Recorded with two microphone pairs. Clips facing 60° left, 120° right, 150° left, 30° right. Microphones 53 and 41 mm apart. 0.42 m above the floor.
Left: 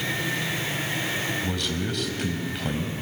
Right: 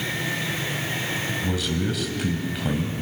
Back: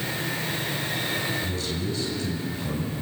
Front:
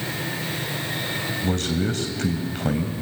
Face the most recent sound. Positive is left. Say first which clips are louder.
# right 3 dB, front 5 dB
turn(degrees=-35)